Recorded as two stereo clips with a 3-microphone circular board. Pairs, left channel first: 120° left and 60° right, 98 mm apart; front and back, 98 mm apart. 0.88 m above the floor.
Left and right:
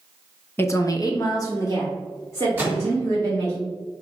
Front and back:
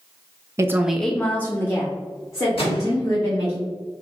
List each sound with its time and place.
0.6 s a woman speaking: 165° left, 0.5 m; by 3.6 s 55° left, 3.5 m
2.6 s a microwave: 10° left, 1.7 m